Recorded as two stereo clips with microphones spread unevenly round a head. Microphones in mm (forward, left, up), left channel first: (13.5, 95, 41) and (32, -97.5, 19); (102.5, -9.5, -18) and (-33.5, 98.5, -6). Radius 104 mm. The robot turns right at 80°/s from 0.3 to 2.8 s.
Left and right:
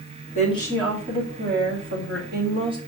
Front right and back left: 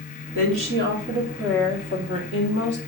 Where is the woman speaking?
145° left, 2.5 m; by 2.8 s 20° right, 2.5 m.